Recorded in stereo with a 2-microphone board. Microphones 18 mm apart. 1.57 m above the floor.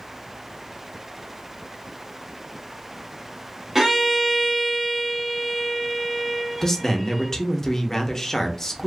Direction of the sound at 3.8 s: 35° right (ahead or behind).